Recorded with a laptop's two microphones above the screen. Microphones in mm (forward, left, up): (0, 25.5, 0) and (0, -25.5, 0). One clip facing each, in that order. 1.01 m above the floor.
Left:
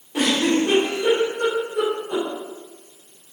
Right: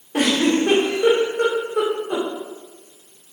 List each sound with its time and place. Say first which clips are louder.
0.1 s a giggle: right 1 dB; 55° right (ahead or behind), 1.7 m